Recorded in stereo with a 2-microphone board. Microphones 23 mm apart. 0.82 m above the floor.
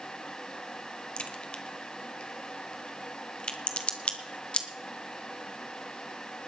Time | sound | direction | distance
1.2 | a crack | 50° left (ahead or behind) | 1.5 m